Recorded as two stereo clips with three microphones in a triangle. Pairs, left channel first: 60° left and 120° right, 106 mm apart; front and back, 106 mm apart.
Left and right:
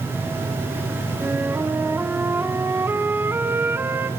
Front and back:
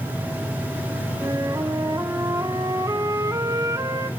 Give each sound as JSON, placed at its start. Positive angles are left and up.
{"t": 1.2, "sound": "a flute", "azimuth_deg": -170, "distance_m": 1.2}